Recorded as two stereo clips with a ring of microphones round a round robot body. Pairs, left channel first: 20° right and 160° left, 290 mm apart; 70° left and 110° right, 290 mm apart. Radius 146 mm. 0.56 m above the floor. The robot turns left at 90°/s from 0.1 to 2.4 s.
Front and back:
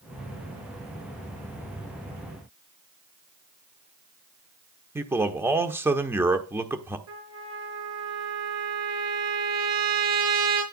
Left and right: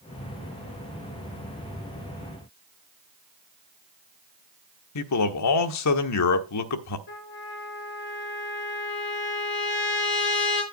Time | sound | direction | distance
5.0 | a man speaking | 75° left | 1.2 m
7.1 | a trumpet | 120° left | 4.5 m